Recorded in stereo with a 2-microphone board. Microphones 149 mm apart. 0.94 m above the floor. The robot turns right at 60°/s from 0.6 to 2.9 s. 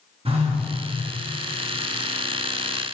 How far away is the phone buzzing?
About 1.7 m.